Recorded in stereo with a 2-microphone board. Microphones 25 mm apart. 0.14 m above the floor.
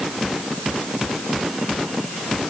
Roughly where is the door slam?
I don't hear a door slam.